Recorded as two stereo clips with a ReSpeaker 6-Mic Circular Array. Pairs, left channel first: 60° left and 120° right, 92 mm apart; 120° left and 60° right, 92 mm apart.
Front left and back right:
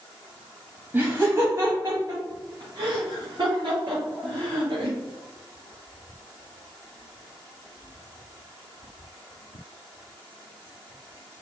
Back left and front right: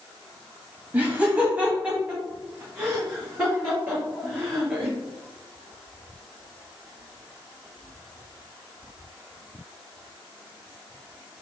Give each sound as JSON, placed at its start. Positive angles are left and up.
{"t": 0.9, "sound": "laughter", "azimuth_deg": -100, "distance_m": 1.1}